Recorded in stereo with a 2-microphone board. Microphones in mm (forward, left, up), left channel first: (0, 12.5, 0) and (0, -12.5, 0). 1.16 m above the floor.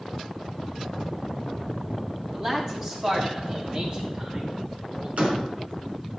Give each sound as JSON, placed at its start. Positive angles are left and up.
{"t": 2.3, "sound": "a man speaking", "side_deg": -20, "distance_m": 3.0}
{"t": 5.2, "sound": "a door slam", "side_deg": -70, "distance_m": 3.5}